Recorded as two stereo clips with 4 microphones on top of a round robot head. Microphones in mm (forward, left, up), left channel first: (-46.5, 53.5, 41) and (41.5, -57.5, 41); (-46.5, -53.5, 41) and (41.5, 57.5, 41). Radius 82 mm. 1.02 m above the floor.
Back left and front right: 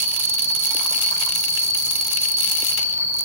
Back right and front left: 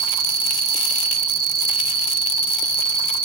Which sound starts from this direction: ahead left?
An insect, at 0.0 s.